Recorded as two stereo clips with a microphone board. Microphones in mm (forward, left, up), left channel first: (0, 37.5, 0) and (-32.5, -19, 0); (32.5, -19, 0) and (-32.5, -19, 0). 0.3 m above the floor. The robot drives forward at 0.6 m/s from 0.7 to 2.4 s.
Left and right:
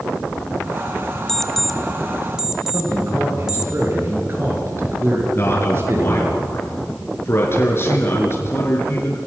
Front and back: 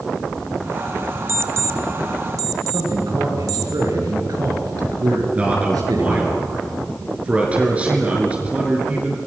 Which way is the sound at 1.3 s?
140° left.